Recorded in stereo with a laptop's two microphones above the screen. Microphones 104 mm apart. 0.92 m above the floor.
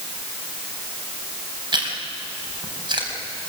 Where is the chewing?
50° right (ahead or behind), 4.5 m.